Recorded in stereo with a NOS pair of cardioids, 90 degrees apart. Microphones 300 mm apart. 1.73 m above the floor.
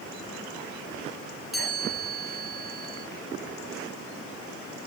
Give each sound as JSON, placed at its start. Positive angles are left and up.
{"t": 1.5, "sound": "a chime", "azimuth_deg": 0, "distance_m": 7.5}